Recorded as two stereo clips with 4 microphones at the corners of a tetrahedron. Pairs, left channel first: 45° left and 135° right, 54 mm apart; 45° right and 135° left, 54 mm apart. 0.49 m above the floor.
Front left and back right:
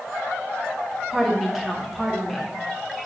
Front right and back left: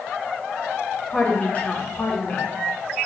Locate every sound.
1.1 s a woman speaking: 50° right, 0.9 m